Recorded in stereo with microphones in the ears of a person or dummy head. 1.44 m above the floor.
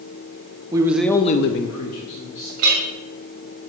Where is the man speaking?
20° right (ahead or behind), 1.0 m; by 2.5 s 70° left (ahead or behind), 1.6 m.